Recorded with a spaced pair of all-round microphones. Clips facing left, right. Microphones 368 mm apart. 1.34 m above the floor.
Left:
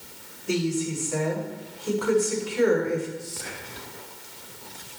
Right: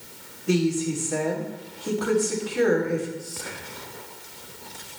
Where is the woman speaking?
90° right, 3.5 m.